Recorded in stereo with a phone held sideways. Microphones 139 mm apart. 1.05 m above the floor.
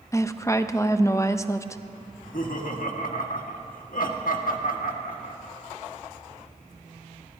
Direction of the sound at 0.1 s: 20° left (ahead or behind).